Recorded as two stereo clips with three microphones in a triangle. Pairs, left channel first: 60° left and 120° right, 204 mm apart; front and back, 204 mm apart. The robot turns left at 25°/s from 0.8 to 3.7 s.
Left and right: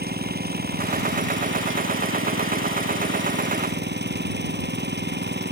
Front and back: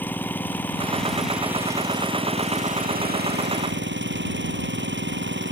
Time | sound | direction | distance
0.0 | an engine running | 80° right | ?